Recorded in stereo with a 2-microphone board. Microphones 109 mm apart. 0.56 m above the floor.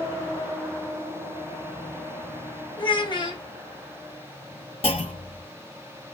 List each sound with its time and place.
2.8 s a child speaking: 45° left (ahead or behind), 0.9 m
4.8 s a clunk: 60° left (ahead or behind), 0.7 m